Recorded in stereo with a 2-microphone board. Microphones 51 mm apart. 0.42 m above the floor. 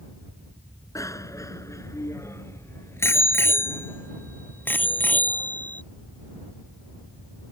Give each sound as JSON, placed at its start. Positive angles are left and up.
{"t": 0.9, "sound": "a bicycle bell", "side_deg": 80}